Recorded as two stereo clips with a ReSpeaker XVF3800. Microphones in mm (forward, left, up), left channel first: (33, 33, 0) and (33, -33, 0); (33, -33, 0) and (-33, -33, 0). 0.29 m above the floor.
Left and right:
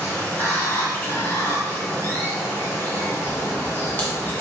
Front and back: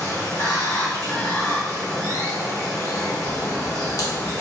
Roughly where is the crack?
Ahead left.